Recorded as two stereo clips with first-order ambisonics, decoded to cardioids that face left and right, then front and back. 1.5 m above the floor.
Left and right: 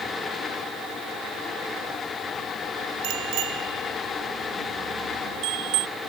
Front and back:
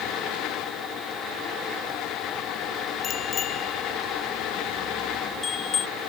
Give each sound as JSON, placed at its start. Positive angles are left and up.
{"t": 3.0, "sound": "a bicycle bell", "azimuth_deg": -65}